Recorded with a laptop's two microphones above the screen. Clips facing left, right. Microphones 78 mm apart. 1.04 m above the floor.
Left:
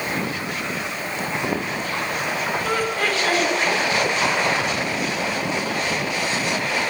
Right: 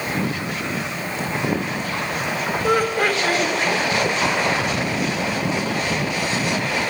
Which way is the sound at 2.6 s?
15° right (ahead or behind).